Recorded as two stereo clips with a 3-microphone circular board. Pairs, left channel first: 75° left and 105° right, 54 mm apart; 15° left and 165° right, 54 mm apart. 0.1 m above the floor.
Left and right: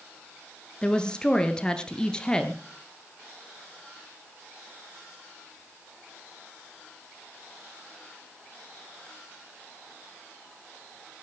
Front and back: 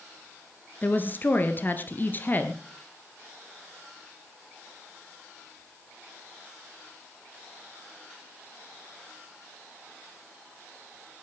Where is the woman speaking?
10° left, 1.6 m.